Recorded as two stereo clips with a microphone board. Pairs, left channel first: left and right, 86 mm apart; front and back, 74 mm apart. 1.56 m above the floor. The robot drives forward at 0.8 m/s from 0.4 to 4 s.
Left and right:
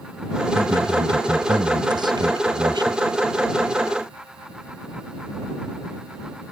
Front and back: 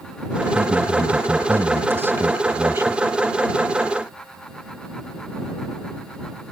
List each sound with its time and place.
0.6 s a man speaking: 115° right; by 3.0 s 125° right